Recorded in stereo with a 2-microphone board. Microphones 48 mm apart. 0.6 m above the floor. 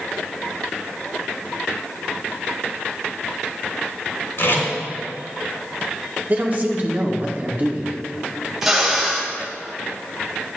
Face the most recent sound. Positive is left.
turn(degrees=-5)  # may be behind; listen again after turning